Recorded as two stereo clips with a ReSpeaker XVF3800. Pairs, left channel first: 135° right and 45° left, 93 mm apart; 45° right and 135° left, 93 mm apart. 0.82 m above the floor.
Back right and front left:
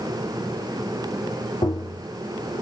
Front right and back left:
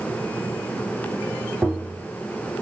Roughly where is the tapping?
Behind right.